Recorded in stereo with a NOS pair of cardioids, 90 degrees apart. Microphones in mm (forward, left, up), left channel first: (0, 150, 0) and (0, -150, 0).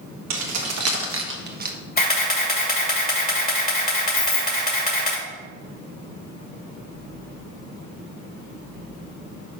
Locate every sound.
0.3 s keys jangling: 70° right, 1.6 m; by 1.8 s 30° right, 1.2 m
2.0 s a camera shutter: 30° left, 2 m
4.2 s keys jangling: 60° left, 1.4 m